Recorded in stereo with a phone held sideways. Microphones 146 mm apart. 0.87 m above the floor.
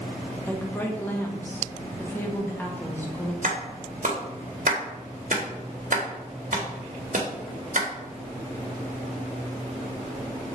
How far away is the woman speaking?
About 1.1 m.